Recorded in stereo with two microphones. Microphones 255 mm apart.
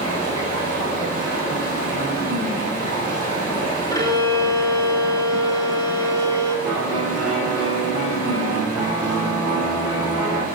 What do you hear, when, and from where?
0.0 s running water: 60° right (ahead or behind), 3 m
3.9 s a violin: 15° left (ahead or behind), 0.6 m
6.7 s a piano: centre (ahead or behind), 2.5 m